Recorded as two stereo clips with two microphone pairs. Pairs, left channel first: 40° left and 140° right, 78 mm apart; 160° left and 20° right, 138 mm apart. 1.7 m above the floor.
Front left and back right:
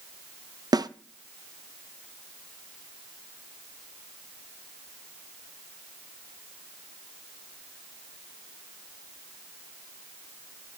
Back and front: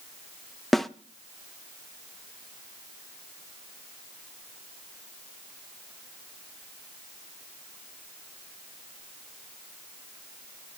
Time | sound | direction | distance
0.7 | a snare drum | 105° right | 0.6 m